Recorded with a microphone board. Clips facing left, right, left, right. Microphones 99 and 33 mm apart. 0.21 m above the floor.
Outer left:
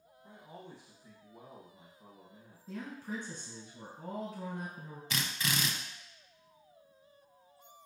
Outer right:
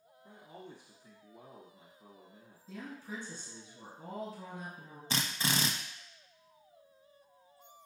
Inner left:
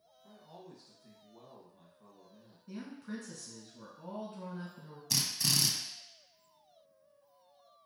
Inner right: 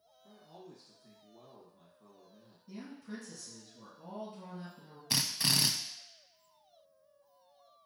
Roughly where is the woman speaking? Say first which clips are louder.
Outer left 3 dB, inner left 2 dB; left.